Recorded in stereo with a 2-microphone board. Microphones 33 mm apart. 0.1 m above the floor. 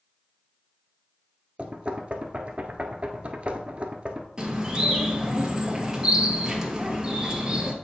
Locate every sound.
1.6 s knocking: 40° right (ahead or behind), 1.0 m
4.4 s a bird: 15° right (ahead or behind), 1.6 m